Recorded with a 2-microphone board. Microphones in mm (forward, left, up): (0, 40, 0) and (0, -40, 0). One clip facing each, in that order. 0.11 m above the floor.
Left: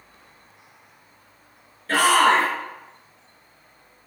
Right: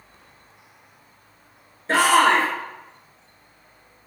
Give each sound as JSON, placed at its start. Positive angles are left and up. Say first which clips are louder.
{"t": 1.9, "sound": "a shout", "louder": "right 1 dB", "side_deg": -25, "distance_m": 1.2}